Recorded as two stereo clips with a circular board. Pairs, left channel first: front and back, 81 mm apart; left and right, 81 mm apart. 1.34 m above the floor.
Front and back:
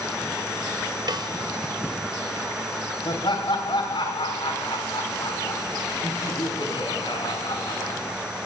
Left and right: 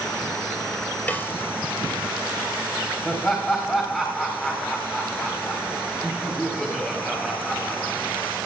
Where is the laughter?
20° left, 4 m.